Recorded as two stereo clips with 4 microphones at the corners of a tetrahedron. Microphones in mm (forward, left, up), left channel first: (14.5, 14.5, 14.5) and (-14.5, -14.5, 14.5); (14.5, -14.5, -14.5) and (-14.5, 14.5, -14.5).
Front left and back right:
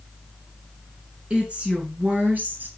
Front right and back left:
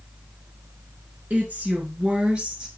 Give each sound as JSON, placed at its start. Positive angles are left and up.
{"t": 1.3, "sound": "a woman speaking", "azimuth_deg": 170, "distance_m": 2.5}